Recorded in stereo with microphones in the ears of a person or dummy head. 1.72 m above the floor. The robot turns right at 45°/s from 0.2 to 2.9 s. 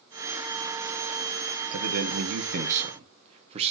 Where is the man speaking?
90° right, 1.3 m; by 3.7 s 35° right, 1.3 m.